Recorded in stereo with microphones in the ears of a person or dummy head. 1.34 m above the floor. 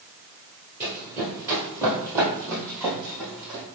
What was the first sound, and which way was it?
Running footsteps, 5° right (ahead or behind).